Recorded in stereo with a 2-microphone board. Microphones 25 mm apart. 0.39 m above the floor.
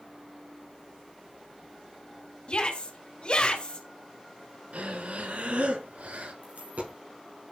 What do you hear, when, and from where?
2.5 s a shout: 45° left (ahead or behind), 3 m
4.7 s breathing: 80° right, 2.5 m
6.4 s a dropped coin: 80° right, 5.5 m